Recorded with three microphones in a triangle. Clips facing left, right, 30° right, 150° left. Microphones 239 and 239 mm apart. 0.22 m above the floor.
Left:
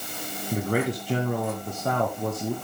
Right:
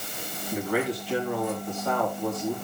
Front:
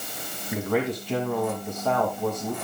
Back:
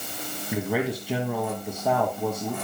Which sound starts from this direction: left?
A man speaking, at 0.5 s.